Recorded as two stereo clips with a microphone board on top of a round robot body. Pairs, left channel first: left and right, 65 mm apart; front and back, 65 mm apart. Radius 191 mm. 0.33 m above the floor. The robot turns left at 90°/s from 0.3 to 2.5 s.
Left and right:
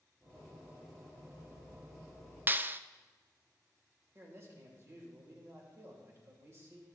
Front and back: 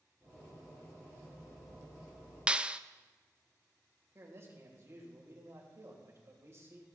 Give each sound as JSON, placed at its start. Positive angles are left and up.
{"t": 2.5, "sound": "a clap", "azimuth_deg": -115, "distance_m": 0.6}
{"t": 4.2, "sound": "a man speaking", "azimuth_deg": -135, "distance_m": 2.5}